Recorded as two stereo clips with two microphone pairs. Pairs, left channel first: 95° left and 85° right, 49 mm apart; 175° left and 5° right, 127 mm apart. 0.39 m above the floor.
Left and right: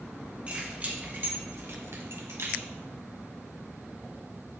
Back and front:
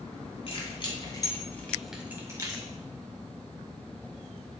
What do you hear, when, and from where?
0.5 s keys jangling: 145° right, 2.5 m; by 2.7 s 55° right, 2.0 m